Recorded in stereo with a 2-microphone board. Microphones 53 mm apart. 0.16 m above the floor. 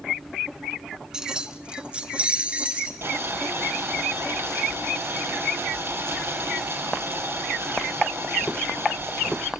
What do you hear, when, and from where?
1.1 s keys jangling: 10° right (ahead or behind), 1.1 m; by 2.9 s 25° right (ahead or behind), 2 m
3.0 s boiling: 55° right (ahead or behind), 5 m